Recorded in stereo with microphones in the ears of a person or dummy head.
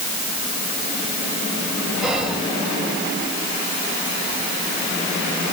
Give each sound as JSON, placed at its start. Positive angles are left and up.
{"t": 2.0, "sound": "whispering", "side_deg": 0, "distance_m": 2.0}